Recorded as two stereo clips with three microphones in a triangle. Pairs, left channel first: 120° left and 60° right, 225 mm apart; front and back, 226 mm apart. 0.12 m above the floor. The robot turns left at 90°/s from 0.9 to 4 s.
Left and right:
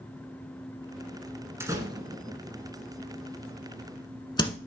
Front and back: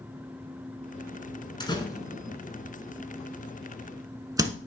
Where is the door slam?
5° right, 1.1 m; by 4.6 s 135° left, 1.1 m.